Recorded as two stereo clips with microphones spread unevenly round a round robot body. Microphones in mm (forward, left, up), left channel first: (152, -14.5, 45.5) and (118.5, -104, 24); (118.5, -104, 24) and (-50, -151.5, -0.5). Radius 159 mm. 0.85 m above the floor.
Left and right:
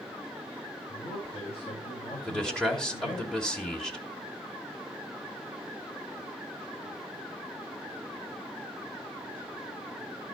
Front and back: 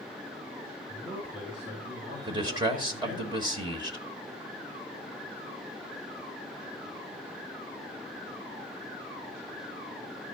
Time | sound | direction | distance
0.9 | a man speaking | 120° left | 4 m
2.3 | a man speaking | 170° left | 1.1 m